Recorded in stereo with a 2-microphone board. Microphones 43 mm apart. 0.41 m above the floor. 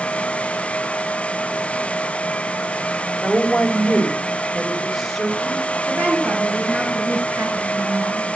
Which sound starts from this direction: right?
A woman speaking, at 5.9 s.